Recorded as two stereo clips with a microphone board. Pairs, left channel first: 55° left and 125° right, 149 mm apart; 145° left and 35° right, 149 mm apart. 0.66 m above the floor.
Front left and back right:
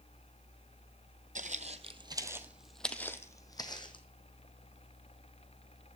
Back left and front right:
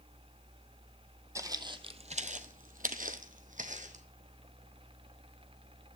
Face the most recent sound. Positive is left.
turn(degrees=0)